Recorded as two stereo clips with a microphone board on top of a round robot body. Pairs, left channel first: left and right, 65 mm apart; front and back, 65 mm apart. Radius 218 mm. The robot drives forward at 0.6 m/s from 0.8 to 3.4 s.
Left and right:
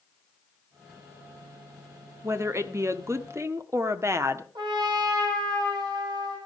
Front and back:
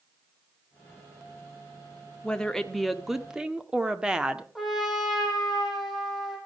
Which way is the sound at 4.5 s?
95° right.